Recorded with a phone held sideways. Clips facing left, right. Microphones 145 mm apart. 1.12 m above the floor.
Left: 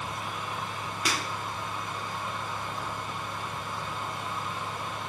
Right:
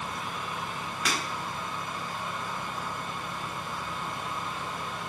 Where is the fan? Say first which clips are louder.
Even; 20° left (ahead or behind), 1.2 m.